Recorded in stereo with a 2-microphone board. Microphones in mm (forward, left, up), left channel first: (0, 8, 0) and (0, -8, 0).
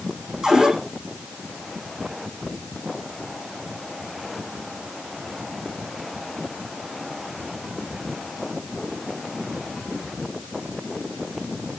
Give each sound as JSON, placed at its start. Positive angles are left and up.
{"t": 0.4, "sound": "a cupboard door", "side_deg": -75, "distance_m": 8.0}